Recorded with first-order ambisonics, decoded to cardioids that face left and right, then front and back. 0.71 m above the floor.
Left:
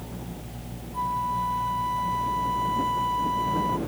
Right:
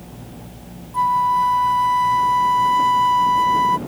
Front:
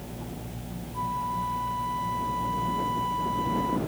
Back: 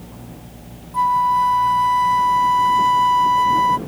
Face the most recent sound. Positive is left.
turn(degrees=-145)